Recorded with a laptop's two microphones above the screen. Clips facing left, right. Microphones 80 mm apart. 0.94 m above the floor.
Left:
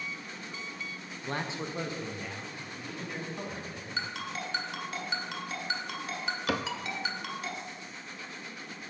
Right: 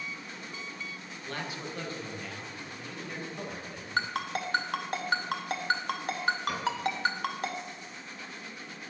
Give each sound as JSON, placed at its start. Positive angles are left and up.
{"t": 1.2, "sound": "a man speaking", "side_deg": 30, "distance_m": 0.6}
{"t": 4.0, "sound": "a ringtone", "side_deg": -50, "distance_m": 1.5}
{"t": 6.5, "sound": "a cupboard door", "side_deg": 85, "distance_m": 0.6}